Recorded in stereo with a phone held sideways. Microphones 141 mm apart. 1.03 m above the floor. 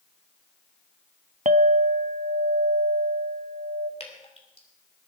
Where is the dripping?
45° left (ahead or behind), 3 m.